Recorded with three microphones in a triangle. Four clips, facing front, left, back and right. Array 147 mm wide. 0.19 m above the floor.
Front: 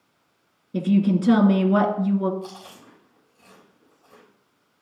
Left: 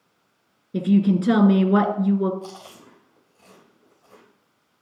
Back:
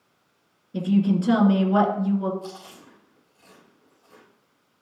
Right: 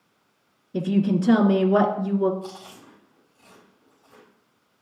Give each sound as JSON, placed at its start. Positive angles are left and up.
{"t": 0.7, "sound": "a woman speaking", "azimuth_deg": 65, "distance_m": 2.5}
{"t": 2.4, "sound": "chewing", "azimuth_deg": 90, "distance_m": 4.0}